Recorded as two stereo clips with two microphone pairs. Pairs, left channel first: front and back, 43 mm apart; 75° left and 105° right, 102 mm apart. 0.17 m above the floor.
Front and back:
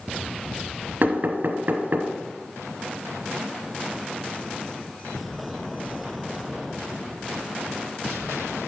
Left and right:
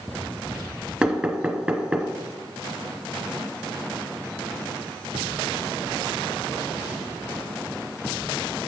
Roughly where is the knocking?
Behind.